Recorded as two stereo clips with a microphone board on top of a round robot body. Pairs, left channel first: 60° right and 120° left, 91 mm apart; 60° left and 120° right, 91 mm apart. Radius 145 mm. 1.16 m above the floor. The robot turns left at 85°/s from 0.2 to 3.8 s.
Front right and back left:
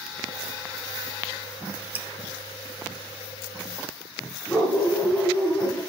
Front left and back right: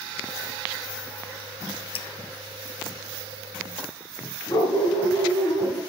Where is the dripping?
50° left, 1.5 m; by 2.1 s 35° left, 1.5 m.